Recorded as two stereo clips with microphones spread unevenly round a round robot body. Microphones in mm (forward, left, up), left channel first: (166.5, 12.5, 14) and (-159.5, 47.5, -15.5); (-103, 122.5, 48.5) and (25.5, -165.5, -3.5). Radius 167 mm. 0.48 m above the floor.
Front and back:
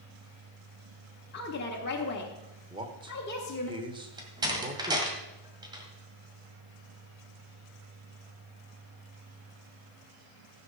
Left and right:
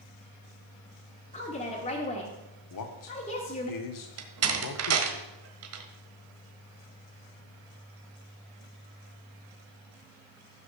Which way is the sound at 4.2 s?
110° right.